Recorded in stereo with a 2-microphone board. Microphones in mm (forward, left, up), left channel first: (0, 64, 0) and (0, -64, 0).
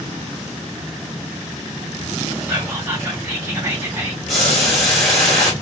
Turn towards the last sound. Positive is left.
turn(degrees=0)  # may be behind; listen again after turning